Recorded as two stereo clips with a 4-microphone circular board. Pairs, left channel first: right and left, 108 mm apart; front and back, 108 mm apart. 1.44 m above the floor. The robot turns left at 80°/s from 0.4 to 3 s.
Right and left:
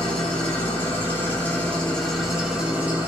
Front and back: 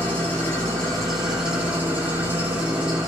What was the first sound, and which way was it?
An engine running, 35° right.